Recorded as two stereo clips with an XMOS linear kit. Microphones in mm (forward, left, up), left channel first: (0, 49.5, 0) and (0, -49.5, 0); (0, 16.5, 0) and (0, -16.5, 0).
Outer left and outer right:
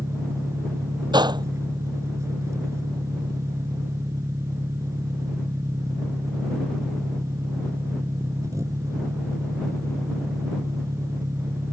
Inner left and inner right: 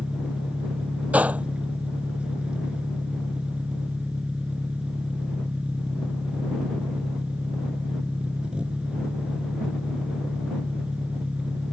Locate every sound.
0.0 s an engine running: 30° right (ahead or behind)
1.1 s a gunshot: 45° right (ahead or behind)